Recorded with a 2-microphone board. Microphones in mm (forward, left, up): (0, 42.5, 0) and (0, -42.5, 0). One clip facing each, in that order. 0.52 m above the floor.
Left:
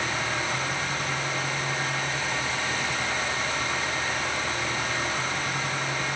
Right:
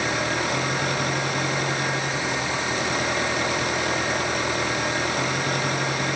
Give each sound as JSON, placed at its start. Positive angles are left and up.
{"t": 0.0, "sound": "an engine running", "side_deg": -75, "distance_m": 6.0}